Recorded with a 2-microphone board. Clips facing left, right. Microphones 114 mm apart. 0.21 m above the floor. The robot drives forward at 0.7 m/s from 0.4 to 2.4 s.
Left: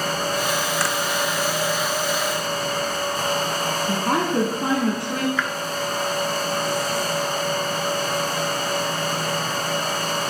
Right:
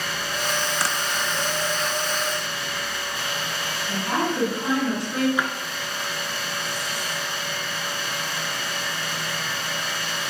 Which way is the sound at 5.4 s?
15° right (ahead or behind).